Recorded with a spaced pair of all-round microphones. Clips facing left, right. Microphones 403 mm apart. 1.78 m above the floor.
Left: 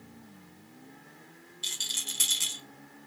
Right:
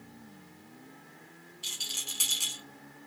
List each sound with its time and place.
1.6 s a rattle: 35° left (ahead or behind), 0.8 m